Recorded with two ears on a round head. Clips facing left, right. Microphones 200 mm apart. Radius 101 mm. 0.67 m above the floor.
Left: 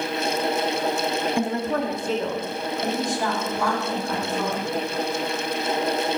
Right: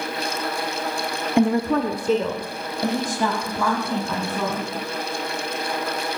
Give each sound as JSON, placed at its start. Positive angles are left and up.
{"t": 1.4, "sound": "a woman speaking", "side_deg": -50, "distance_m": 0.9}